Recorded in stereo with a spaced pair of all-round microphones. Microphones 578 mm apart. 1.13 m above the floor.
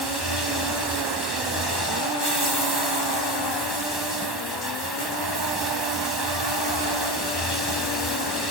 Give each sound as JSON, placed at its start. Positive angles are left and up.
{"t": 0.0, "sound": "running water", "side_deg": 40}